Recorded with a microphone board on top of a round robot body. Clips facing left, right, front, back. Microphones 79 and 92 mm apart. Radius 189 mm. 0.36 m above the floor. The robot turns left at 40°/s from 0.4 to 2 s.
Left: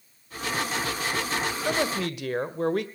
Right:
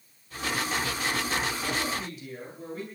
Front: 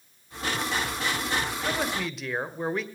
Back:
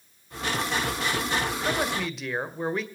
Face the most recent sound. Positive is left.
turn(degrees=90)